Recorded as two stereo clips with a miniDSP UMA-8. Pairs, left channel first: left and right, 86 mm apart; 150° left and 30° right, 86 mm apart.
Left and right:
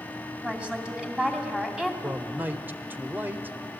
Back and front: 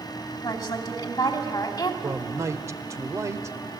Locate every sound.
0.4 s a woman speaking: 170° right, 3 m
2.0 s a man speaking: 40° right, 1.0 m